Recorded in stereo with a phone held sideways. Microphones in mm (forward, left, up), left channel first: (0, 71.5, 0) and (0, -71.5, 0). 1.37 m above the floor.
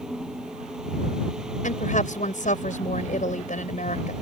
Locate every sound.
0.0 s a fan: 5° right (ahead or behind)
1.6 s a woman speaking: 60° left (ahead or behind)